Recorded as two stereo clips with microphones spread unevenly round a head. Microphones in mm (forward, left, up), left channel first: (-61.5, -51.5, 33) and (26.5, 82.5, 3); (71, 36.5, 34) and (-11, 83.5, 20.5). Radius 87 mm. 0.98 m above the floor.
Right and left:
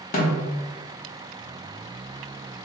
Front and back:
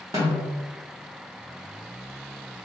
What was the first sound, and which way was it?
A snare drum, 140° right.